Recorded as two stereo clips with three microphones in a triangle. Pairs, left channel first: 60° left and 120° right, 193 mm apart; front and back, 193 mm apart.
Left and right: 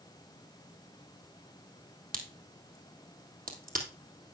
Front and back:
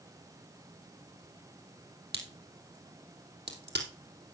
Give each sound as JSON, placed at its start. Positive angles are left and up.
{"t": 2.1, "sound": "a crack", "azimuth_deg": -160, "distance_m": 2.5}